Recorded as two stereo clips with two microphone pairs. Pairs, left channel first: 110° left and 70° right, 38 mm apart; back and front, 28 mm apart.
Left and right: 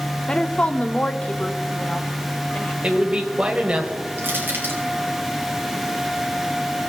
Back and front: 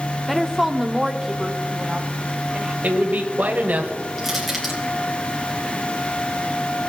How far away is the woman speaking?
About 0.9 m.